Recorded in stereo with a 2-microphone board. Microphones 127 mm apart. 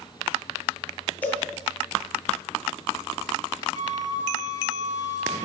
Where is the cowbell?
10° left (ahead or behind), 7.5 m.